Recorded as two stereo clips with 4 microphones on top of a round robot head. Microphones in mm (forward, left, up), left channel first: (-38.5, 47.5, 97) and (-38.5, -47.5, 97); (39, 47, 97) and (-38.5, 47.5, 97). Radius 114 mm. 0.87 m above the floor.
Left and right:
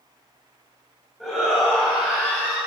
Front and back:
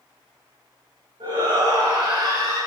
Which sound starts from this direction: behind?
A shout, at 1.2 s.